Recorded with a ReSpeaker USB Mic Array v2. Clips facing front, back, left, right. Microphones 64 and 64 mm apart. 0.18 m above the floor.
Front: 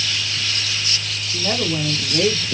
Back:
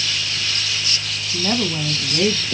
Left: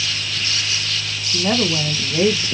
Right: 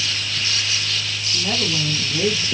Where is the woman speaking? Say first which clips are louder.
Back 1 dB, left 5 dB; 110° left, 1.9 m.